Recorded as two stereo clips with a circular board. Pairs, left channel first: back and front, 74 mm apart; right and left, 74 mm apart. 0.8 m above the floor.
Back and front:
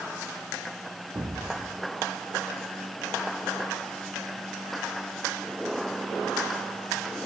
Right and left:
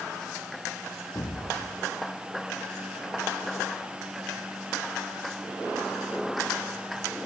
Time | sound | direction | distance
1.1 | an explosion | 45° right | 2.5 m